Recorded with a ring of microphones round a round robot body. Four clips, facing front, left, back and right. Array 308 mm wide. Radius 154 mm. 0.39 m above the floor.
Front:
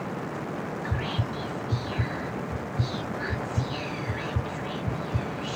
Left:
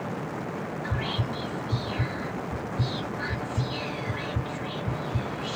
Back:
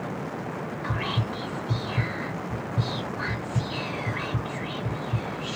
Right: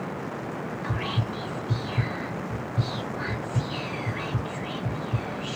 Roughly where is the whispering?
Behind.